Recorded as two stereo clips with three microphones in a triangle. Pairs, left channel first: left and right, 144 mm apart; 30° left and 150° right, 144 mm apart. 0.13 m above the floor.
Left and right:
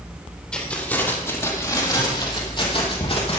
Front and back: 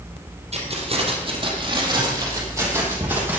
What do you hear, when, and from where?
0.5 s keys jangling: 175° left, 3.5 m; by 3.4 s 135° left, 4 m